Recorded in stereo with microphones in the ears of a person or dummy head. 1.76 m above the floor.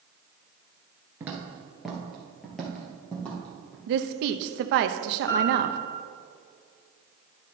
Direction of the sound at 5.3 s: 15° left (ahead or behind).